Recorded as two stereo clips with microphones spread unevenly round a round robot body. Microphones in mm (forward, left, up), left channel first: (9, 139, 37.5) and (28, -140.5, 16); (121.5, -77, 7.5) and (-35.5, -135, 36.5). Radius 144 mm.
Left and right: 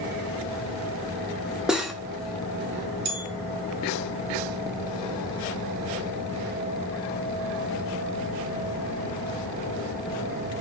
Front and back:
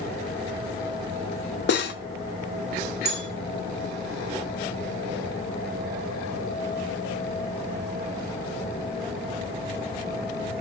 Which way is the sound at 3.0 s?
140° right.